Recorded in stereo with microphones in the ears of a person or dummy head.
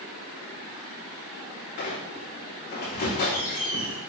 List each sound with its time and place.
1.8 s a squeak: 40° left (ahead or behind), 2 m